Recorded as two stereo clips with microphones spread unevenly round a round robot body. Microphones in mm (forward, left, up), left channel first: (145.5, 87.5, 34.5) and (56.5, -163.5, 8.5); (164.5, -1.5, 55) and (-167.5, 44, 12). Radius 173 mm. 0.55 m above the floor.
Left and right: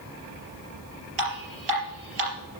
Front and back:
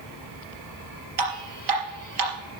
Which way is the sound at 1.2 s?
145° right.